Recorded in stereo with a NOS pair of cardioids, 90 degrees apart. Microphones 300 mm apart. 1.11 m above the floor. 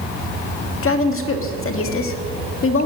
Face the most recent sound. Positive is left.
turn(degrees=50)